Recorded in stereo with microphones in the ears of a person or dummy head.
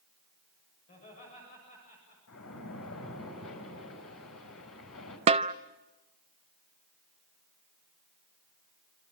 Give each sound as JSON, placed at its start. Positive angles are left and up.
{"t": 0.9, "sound": "laughter", "side_deg": 35, "distance_m": 7.0}
{"t": 2.3, "sound": "a splash", "side_deg": 70, "distance_m": 5.5}
{"t": 5.3, "sound": "a snare drum", "side_deg": -40, "distance_m": 0.6}